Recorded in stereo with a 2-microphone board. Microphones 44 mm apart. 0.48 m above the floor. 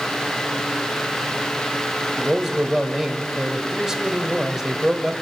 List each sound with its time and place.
2.2 s a man speaking: 10° right (ahead or behind), 2.5 m